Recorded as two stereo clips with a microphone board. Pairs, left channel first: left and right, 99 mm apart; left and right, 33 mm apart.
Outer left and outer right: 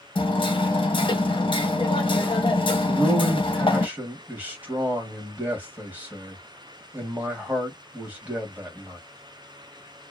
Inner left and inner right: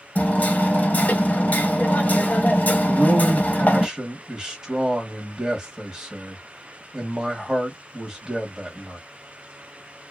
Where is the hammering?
50° left (ahead or behind), 0.7 m.